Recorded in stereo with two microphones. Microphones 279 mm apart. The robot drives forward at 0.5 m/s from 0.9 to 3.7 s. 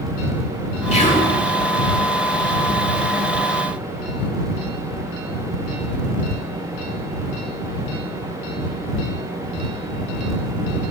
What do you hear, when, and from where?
0.9 s whispering: 25° left (ahead or behind), 1.0 m